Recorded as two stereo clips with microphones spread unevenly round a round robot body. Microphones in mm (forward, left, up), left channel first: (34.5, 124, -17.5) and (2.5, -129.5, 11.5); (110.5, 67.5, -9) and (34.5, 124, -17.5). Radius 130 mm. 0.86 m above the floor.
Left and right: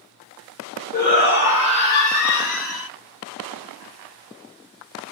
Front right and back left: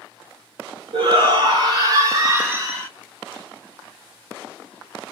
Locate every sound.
0.9 s a shout: 140° left, 0.9 m; by 2.9 s 65° left, 1.0 m